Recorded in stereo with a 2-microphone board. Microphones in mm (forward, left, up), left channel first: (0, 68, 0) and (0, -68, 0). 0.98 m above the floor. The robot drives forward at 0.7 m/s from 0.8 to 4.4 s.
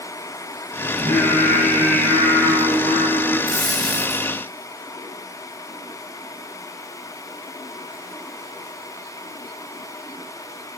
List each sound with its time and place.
0.9 s singing: 75° right (ahead or behind), 3 m; by 3.4 s 60° right (ahead or behind), 3.5 m
3.5 s a dropped coin: 70° left (ahead or behind), 4 m; by 4.3 s 60° left (ahead or behind), 4 m